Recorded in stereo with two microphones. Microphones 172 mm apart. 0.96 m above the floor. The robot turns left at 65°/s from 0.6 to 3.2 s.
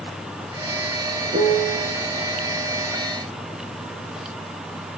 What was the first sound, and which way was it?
A piano, 110° right.